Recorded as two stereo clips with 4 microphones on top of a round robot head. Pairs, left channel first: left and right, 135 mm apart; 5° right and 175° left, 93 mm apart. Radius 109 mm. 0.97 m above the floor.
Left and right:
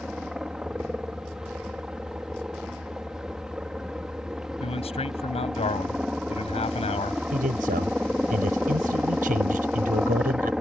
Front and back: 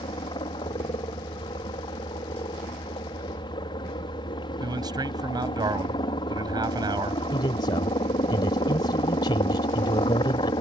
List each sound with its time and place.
0.0 s a helicopter: 5° right
4.6 s a man speaking: 135° left
7.3 s a man speaking: 55° right